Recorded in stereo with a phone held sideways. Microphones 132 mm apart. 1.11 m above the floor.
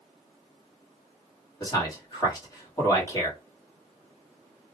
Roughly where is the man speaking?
Left.